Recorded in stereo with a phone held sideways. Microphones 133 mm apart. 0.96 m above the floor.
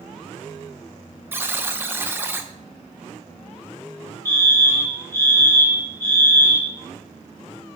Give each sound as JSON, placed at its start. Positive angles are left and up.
{"t": 1.3, "sound": "a buzzer", "side_deg": -15, "distance_m": 0.8}
{"t": 4.2, "sound": "a fire alarm", "side_deg": 25, "distance_m": 4.0}